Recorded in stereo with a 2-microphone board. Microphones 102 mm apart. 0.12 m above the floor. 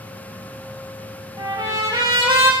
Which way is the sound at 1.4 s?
50° right (ahead or behind).